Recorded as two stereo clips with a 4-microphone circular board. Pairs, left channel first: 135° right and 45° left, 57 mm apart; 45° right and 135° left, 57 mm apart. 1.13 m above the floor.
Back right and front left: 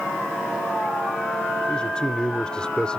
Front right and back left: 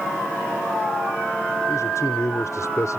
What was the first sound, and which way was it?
A man speaking, 60° right.